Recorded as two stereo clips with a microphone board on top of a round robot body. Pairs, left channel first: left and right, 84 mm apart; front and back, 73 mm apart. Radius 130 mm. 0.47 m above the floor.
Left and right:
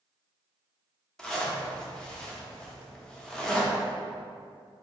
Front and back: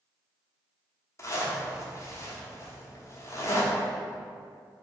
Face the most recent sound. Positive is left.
turn(degrees=10)